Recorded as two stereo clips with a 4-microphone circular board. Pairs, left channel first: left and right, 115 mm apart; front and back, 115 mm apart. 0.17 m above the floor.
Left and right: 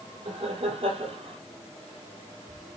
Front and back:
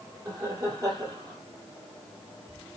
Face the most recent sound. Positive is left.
turn(degrees=-125)